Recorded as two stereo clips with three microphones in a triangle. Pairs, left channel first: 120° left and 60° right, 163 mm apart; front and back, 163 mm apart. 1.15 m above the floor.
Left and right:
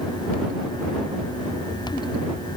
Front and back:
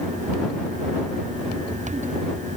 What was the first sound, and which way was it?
Only background noise.